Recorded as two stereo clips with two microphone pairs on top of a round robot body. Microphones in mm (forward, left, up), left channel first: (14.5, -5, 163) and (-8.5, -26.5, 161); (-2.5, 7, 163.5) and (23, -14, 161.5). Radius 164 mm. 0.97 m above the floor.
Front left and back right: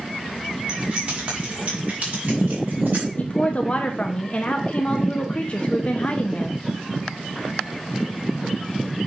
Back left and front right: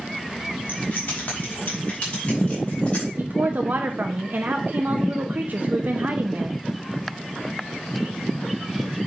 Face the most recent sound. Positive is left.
turn(degrees=-10)